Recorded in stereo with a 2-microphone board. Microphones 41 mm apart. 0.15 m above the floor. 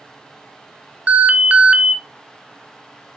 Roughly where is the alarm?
Right.